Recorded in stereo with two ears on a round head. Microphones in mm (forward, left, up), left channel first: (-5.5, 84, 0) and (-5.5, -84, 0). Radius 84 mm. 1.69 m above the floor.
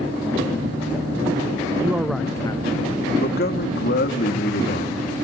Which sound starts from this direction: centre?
A man speaking, at 1.8 s.